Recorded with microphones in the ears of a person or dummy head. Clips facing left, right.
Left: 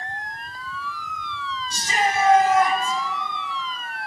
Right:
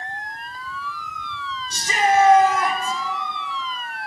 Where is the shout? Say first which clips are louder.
Right 5 dB; 85° right, 3.5 m; by 3.0 s 65° right (ahead or behind), 3 m.